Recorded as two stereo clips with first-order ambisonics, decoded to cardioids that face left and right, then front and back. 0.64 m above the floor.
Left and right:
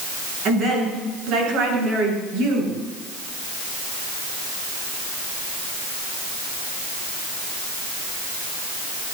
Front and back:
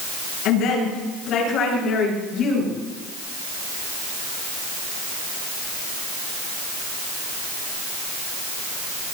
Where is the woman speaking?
40° right, 8.5 m; by 2.8 s 65° right, 8.5 m.